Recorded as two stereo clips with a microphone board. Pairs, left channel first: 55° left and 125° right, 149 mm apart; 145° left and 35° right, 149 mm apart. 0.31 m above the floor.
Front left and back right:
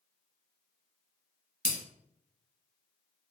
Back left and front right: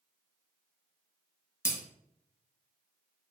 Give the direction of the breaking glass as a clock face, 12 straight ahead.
9 o'clock.